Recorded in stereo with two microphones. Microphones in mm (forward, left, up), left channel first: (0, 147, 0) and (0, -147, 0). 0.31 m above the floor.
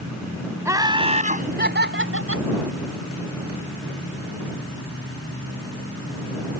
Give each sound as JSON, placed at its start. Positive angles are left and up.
{"t": 0.7, "sound": "laughter", "side_deg": -10}